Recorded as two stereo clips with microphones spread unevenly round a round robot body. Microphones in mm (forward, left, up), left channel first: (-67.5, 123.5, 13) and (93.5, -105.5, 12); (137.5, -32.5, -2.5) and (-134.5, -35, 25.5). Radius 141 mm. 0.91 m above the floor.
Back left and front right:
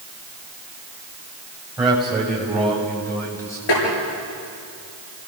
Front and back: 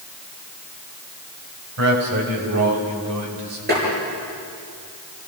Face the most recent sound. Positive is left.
turn(degrees=120)